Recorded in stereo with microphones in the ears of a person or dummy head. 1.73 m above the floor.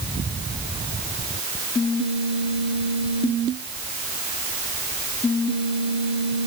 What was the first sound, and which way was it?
Only background noise.